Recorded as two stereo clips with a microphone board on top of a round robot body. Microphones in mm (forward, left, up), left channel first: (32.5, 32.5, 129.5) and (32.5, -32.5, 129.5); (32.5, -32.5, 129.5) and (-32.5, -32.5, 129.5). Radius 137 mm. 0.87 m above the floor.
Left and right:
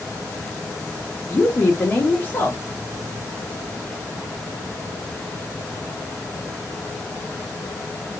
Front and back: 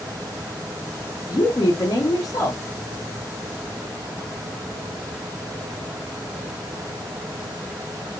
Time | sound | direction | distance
1.3 | a woman speaking | 30° left | 1.0 m